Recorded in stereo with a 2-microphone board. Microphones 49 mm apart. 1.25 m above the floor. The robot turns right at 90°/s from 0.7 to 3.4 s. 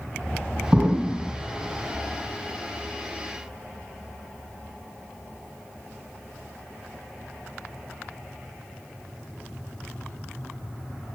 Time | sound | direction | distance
0.7 | an explosion | 20° right | 1.7 m